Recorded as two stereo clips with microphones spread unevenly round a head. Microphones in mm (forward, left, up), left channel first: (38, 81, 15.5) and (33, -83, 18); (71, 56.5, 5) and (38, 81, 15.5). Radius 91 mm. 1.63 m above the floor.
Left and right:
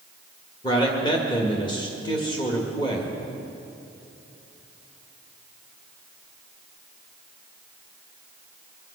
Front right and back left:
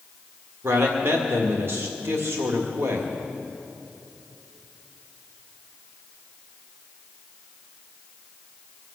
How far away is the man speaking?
About 1.8 m.